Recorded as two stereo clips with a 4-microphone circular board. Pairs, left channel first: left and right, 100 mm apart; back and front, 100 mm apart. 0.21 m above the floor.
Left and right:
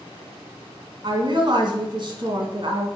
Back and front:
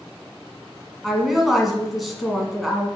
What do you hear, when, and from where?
1.0 s a woman speaking: 90° right, 1.5 m